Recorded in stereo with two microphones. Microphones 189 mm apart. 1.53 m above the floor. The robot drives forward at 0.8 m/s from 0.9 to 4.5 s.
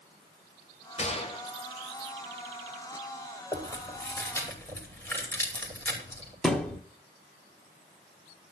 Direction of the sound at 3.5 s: 10° left (ahead or behind).